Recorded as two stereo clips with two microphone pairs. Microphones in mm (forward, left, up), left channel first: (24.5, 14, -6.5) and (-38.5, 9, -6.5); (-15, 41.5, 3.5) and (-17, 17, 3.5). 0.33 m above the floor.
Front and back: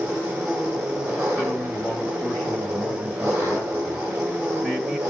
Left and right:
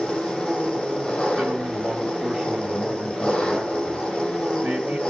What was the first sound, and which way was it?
An engine running, 140° left.